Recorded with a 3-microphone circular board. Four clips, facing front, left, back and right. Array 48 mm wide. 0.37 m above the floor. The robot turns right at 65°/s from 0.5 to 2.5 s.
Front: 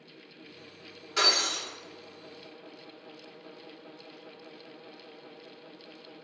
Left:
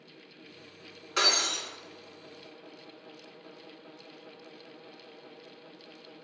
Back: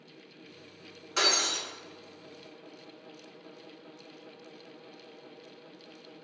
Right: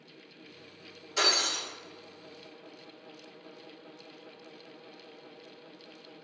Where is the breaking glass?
100° left, 1.5 m; by 1.6 s 130° left, 1.5 m.